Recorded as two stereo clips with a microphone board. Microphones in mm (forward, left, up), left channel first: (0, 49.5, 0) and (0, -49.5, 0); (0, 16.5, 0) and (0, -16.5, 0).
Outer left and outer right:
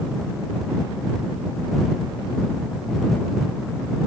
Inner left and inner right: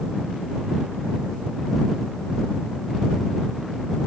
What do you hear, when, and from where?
Only background noise.